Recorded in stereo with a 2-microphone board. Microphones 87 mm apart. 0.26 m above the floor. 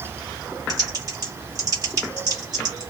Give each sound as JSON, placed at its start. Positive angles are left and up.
{"t": 0.7, "sound": "typing on a keyboard", "side_deg": -45, "distance_m": 2.0}